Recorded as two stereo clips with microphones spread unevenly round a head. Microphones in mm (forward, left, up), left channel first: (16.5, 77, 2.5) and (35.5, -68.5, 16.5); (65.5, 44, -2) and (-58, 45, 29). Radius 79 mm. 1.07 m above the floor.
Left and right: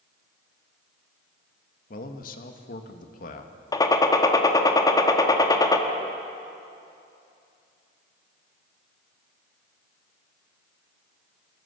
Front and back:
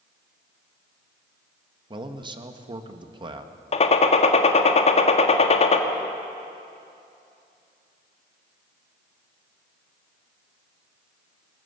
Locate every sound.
1.9 s a man speaking: 125° left, 1.8 m
3.7 s a gunshot: 30° left, 1.7 m